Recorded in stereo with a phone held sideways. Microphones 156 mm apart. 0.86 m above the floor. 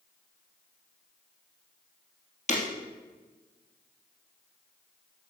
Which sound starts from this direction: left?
Breaking glass, at 2.5 s.